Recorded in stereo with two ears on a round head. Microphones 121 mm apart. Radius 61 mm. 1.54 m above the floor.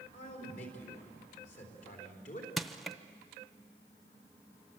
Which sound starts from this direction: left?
A man speaking, at 0.1 s.